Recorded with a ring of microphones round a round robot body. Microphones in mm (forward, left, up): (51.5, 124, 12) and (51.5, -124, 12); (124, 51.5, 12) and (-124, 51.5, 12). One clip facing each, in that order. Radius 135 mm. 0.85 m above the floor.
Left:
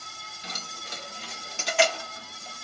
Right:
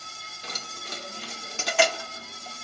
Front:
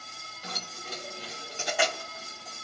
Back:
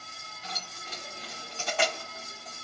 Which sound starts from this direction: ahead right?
Keys jangling, at 0.4 s.